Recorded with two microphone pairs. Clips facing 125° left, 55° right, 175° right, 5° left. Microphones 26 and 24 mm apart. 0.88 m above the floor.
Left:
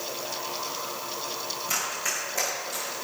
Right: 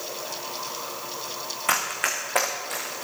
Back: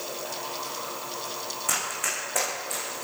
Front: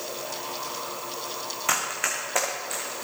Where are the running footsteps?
50° right, 4 m; by 3.0 s 70° right, 5 m.